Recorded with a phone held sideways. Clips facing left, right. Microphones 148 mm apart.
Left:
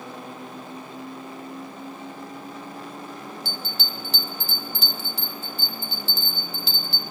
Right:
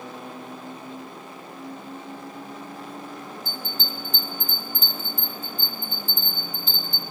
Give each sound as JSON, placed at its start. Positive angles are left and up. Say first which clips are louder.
{"t": 3.5, "sound": "a bell", "louder": "even", "side_deg": 75, "distance_m": 1.2}